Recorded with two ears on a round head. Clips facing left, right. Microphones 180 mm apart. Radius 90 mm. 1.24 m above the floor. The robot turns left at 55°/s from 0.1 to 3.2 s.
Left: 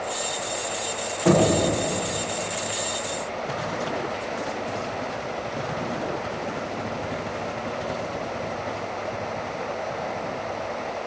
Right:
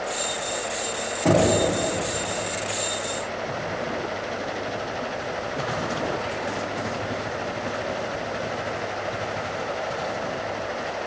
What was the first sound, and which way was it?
Knocking, 35° right (ahead or behind).